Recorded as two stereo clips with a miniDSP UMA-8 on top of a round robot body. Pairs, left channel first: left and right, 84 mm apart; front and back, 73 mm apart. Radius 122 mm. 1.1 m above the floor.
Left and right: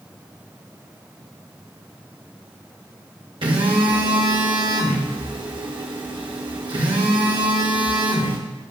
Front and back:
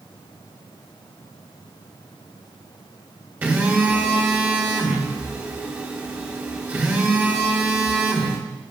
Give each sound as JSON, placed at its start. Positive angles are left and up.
{"t": 3.4, "sound": "a phone buzzing", "azimuth_deg": -115, "distance_m": 1.3}